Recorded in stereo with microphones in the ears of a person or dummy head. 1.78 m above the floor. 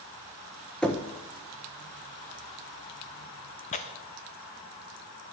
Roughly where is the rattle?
I don't hear a rattle.